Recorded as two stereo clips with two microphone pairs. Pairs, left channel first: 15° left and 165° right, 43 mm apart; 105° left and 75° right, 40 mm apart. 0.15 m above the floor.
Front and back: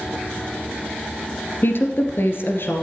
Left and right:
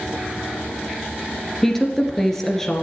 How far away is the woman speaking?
About 1.9 m.